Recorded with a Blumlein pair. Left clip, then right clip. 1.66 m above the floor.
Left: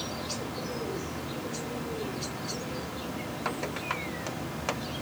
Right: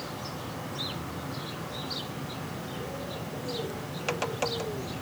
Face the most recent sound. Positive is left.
turn(degrees=45)